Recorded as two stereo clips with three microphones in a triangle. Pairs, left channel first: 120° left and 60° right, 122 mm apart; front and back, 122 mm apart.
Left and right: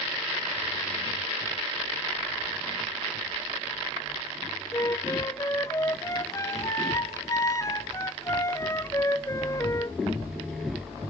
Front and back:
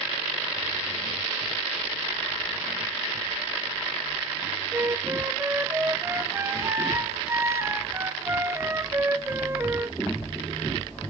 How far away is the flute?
About 0.6 m.